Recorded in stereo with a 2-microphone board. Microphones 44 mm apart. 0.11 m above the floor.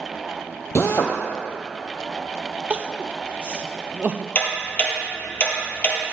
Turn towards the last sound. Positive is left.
turn(degrees=35)  # may be behind; listen again after turning